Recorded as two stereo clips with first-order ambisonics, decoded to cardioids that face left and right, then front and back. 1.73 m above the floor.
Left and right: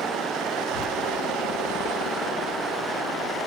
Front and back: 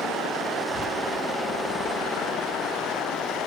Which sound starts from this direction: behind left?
A child speaking, at 0.7 s.